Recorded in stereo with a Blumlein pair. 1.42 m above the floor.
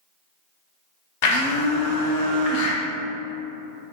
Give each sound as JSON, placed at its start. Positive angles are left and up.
{"t": 1.2, "sound": "a blender", "azimuth_deg": 45, "distance_m": 0.5}